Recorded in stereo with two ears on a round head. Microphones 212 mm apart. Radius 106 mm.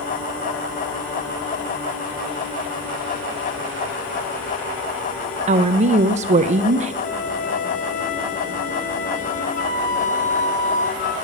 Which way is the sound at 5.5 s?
30° right (ahead or behind).